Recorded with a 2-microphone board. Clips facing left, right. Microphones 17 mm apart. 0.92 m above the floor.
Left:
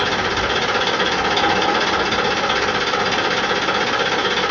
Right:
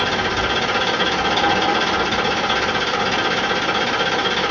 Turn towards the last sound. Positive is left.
turn(degrees=5)  # may be behind; listen again after turning